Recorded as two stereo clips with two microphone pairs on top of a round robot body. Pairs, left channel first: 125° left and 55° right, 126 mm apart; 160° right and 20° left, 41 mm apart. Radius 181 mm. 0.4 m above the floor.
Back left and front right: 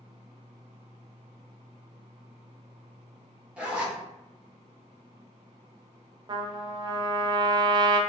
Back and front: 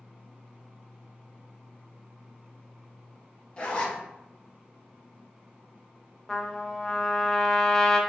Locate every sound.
3.6 s a zipper: 125° right, 1.0 m
6.3 s a trumpet: 80° right, 0.6 m